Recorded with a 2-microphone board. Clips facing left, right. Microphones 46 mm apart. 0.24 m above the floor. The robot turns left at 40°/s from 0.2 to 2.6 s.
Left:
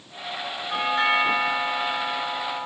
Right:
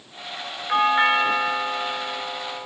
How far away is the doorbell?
About 4 m.